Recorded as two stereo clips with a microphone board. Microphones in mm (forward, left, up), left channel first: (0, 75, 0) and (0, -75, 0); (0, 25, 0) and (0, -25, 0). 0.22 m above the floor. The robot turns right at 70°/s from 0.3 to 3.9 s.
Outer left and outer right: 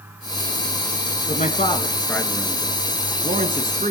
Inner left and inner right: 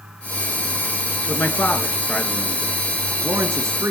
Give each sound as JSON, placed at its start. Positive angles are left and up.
{"t": 1.3, "sound": "a man speaking", "side_deg": 65, "distance_m": 2.5}